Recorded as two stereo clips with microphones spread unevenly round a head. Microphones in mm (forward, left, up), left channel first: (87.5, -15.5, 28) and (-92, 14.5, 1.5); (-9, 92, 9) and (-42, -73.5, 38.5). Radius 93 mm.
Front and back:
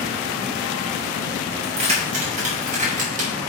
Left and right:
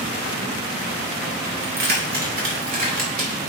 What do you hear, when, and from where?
1.6 s keys jangling: 130° right, 2.5 m; by 3.3 s 140° right, 3.5 m